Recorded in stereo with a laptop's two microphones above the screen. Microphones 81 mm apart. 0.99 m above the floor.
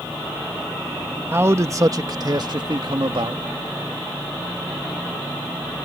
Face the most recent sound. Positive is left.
turn(degrees=-70)  # may be behind; listen again after turning